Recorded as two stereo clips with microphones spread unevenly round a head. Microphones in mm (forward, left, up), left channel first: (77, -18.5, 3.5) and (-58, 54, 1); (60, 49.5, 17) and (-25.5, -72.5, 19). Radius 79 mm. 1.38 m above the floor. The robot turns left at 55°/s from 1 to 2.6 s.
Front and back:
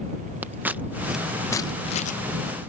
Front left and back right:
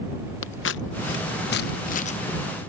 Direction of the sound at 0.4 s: 70° left.